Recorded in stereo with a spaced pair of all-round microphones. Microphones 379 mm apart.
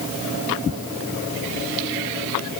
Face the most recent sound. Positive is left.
No sound to turn to.